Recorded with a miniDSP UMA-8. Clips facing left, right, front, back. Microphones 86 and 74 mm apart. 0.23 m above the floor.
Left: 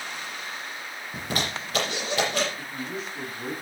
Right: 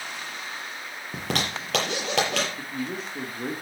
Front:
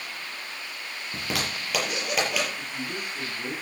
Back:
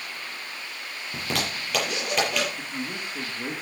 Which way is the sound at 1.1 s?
85° right.